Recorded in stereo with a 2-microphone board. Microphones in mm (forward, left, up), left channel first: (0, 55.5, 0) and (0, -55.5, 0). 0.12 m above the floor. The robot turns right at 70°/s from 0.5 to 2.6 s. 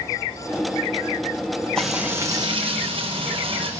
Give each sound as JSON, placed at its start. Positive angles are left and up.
{"t": 1.8, "sound": "frying", "azimuth_deg": 175, "distance_m": 2.5}